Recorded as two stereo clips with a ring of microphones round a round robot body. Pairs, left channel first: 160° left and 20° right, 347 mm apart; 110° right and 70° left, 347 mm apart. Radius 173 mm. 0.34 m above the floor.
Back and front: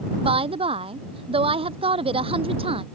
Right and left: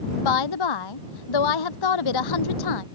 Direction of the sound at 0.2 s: 95° right.